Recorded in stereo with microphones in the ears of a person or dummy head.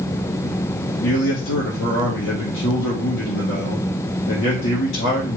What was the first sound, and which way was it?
A man speaking, 70° left (ahead or behind).